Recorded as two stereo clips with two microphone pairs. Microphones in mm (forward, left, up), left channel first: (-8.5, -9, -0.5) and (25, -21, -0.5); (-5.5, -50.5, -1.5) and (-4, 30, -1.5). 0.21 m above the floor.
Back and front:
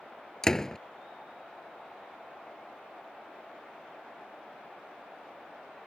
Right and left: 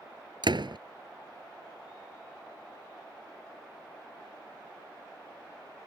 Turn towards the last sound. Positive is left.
turn(degrees=85)